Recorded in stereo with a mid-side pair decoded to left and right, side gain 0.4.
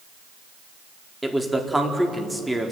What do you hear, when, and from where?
1.2 s a man speaking: 10° right, 4 m